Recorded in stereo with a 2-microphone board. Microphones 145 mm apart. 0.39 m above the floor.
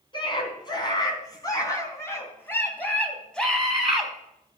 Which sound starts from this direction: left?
A scream, at 0.1 s.